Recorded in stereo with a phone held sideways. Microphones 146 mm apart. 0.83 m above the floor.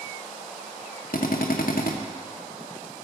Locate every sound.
1.1 s a drill: 75° left (ahead or behind), 0.9 m